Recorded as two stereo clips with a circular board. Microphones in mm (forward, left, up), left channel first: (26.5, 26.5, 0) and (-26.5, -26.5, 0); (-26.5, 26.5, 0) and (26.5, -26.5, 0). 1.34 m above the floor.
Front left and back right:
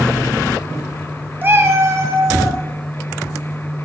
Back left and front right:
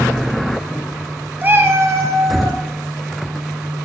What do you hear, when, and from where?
1.4 s a cat meowing: 95° right, 0.6 m; by 2.6 s 90° right, 1.4 m